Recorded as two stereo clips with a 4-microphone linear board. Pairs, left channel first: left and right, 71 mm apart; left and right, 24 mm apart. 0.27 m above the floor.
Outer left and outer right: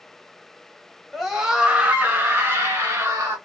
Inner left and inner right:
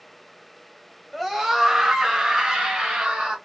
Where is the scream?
Centre (ahead or behind), 1.2 m; by 3.4 s 45° right (ahead or behind), 1.5 m.